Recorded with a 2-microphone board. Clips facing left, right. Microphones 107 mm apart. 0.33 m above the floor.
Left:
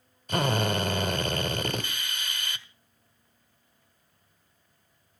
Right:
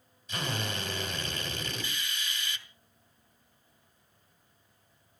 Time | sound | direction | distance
0.3 | a drill | 55° left (ahead or behind) | 1.8 m